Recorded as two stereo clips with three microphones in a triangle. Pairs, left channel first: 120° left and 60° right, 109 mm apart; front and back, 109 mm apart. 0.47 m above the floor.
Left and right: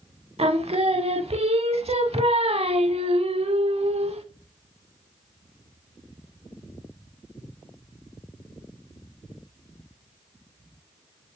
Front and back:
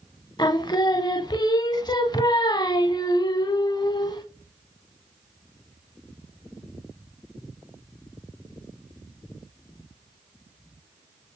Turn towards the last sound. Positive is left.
turn(degrees=-50)